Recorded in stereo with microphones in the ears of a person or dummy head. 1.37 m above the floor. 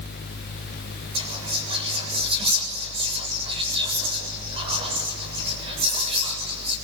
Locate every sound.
1.1 s whispering: 25° right (ahead or behind), 7.5 m